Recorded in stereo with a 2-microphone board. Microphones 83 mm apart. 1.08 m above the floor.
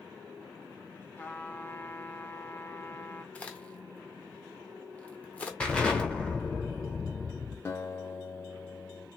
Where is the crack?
15° left (ahead or behind), 0.8 m.